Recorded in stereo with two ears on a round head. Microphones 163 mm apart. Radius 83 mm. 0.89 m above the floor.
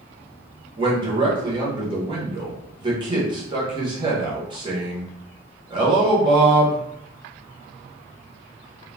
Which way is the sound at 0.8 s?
25° right (ahead or behind).